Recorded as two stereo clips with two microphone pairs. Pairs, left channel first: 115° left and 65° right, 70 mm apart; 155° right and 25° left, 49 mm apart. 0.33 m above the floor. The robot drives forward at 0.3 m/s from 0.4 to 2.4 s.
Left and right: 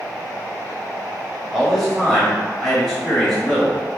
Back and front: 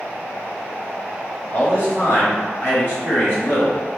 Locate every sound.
1.5 s a man speaking: 160° right, 1.3 m; by 4.0 s 165° right, 1.5 m